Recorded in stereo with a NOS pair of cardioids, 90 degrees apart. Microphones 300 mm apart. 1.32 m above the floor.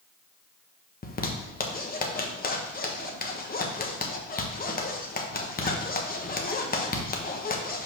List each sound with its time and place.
1.0 s a zipper: 30° left, 1.3 m